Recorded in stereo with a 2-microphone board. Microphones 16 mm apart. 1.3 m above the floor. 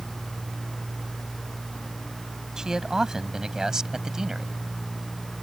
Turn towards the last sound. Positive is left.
turn(degrees=-40)  # may be behind; listen again after turning